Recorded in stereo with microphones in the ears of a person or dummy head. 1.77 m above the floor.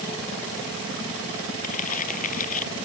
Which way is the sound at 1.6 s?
40° left (ahead or behind).